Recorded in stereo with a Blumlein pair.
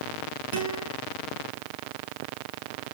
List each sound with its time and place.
0.5 s a guitar: 50° right, 5.5 m